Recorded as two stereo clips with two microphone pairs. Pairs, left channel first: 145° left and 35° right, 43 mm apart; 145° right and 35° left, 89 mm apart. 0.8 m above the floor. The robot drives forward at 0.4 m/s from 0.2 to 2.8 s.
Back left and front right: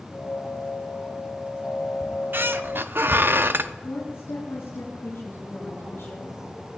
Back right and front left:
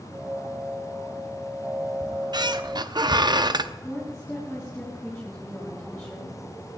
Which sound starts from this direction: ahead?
A squeak, at 2.0 s.